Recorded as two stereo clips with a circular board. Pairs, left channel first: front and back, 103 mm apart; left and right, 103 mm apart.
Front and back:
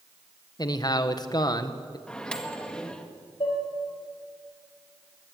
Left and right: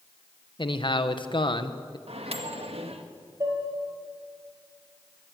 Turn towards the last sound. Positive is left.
turn(degrees=-35)